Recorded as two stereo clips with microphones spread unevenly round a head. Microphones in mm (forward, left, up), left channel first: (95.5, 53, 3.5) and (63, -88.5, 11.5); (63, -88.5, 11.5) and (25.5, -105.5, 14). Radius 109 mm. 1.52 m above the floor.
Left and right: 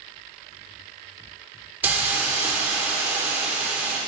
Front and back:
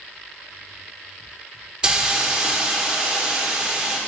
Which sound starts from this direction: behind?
A hiss, at 1.8 s.